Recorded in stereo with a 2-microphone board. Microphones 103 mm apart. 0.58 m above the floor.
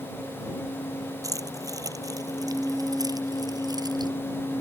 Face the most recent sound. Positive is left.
turn(degrees=-40)  # may be behind; listen again after turning